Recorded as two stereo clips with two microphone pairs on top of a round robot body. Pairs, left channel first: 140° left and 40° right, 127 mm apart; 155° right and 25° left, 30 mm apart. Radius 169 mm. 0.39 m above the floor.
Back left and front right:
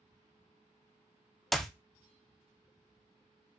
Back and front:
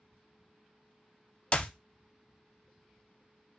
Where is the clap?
140° right, 0.7 m.